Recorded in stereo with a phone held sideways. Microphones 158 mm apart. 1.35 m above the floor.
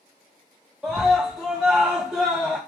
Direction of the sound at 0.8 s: 5° right (ahead or behind).